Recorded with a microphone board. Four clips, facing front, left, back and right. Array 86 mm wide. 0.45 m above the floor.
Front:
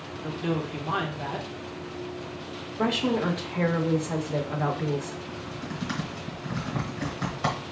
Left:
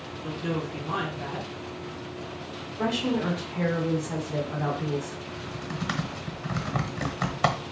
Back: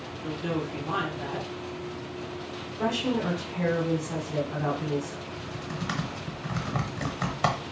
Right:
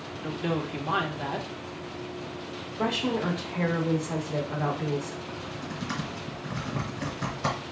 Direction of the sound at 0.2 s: 70° right.